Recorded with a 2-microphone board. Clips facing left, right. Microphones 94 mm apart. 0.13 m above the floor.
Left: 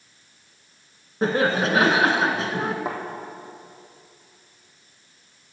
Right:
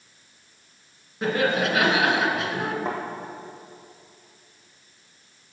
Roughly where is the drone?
I don't hear a drone.